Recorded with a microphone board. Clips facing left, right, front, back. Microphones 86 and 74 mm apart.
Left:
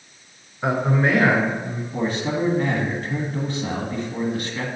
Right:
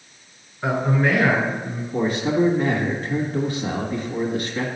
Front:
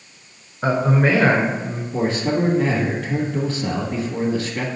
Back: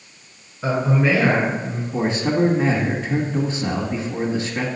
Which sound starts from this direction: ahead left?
A man speaking, at 0.6 s.